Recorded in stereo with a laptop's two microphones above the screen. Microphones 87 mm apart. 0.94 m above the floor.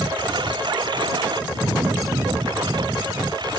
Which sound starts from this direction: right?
A lawn mower, at 0.0 s.